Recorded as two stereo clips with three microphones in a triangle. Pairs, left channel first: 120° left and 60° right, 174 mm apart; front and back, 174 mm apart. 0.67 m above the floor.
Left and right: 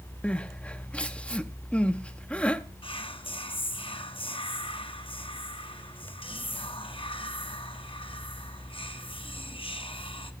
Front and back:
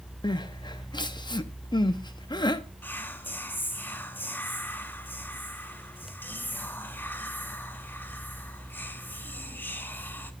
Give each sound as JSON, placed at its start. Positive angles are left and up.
{"t": 0.2, "sound": "crying", "azimuth_deg": 45, "distance_m": 0.5}
{"t": 2.8, "sound": "whispering", "azimuth_deg": 75, "distance_m": 0.8}